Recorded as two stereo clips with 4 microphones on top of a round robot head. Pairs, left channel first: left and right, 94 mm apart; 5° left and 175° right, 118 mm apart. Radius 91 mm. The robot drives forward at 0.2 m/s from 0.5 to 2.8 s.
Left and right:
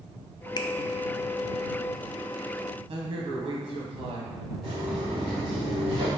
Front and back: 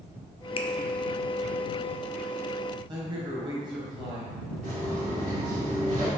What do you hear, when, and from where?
0.6 s a finger snap: 45° left, 0.5 m; by 0.7 s 50° left, 0.5 m
2.9 s a man speaking: 120° right, 1.3 m
4.6 s footsteps: 175° right, 1.9 m; by 6.1 s straight behind, 3 m